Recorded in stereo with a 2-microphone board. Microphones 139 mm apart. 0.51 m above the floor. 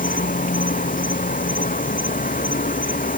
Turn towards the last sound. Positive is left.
turn(degrees=85)